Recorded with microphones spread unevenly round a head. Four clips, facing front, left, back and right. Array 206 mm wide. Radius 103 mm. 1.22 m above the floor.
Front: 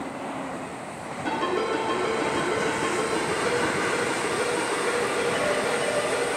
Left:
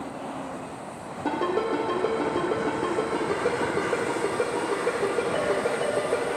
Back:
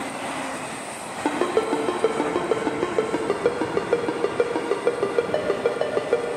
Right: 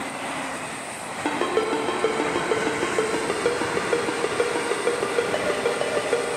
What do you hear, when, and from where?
1.2 s a ringtone: 165° right, 0.7 m